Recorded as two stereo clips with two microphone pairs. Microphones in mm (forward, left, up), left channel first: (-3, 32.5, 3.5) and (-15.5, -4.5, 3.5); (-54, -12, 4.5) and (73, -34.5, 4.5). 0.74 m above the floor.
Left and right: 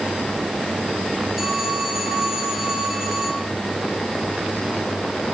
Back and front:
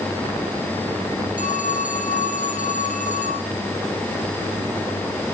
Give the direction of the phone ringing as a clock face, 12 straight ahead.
6 o'clock.